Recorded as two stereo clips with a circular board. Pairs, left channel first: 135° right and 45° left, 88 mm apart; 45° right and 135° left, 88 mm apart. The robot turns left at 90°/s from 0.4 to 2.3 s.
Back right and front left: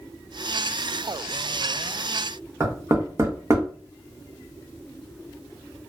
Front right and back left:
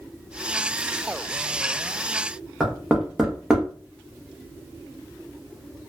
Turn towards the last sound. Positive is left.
turn(degrees=60)